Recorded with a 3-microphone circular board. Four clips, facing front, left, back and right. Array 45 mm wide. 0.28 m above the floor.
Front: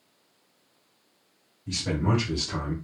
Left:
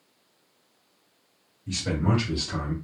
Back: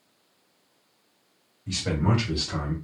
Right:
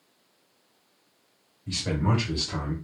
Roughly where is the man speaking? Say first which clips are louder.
Left 1 dB, back 1 dB; behind.